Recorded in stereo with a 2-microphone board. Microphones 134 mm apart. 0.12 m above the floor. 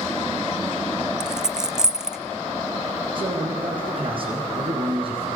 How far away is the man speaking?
About 5.5 m.